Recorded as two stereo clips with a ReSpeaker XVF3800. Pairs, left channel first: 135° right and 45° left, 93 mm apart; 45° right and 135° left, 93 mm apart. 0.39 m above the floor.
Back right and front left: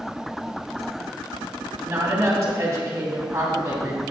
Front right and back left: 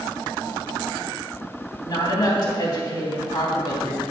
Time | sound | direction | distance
1.8 | a woman speaking | 10° right | 3 m